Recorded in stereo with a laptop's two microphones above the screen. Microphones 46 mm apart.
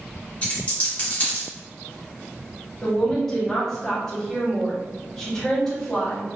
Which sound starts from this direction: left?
A dropped coin, at 0.4 s.